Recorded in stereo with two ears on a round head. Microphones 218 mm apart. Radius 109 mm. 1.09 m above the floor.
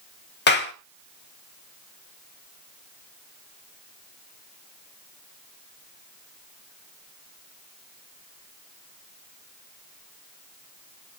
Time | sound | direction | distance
0.5 | a clap | 45° left (ahead or behind) | 2.5 m